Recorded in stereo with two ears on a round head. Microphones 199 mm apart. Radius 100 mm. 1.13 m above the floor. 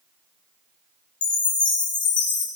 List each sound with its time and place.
1.2 s a chime: 20° left (ahead or behind), 2.5 m